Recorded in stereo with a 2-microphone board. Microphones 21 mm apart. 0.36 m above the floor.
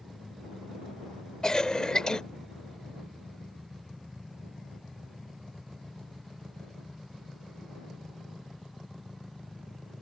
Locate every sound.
1.4 s a cough: 35° left (ahead or behind)